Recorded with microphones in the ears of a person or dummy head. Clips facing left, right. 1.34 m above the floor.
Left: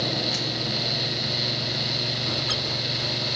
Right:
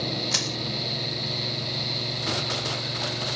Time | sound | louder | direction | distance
0.3 | crushing | left 1 dB | 65° right (ahead or behind) | ?